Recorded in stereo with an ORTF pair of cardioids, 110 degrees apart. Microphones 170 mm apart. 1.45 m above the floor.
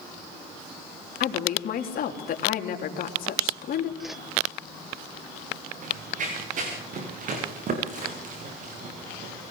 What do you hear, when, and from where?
1.2 s a woman speaking: 60° left, 3.5 m
4.0 s a whoosh: straight ahead, 1.2 m
5.8 s running footsteps: 50° right, 7.5 m